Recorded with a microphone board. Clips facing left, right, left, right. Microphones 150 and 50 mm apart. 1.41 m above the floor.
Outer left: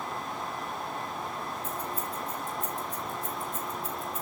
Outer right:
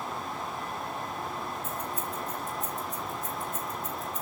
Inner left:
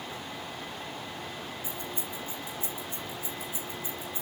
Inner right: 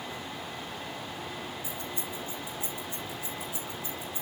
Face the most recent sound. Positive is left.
turn(degrees=30)  # may be behind; listen again after turning